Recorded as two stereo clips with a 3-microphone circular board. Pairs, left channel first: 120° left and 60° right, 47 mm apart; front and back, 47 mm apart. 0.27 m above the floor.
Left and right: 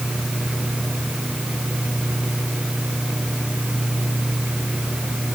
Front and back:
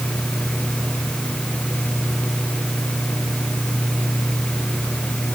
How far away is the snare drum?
No snare drum in this recording.